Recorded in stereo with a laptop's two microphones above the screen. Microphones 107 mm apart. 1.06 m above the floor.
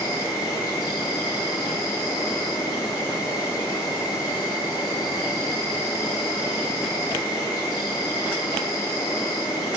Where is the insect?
35° left (ahead or behind), 0.9 m.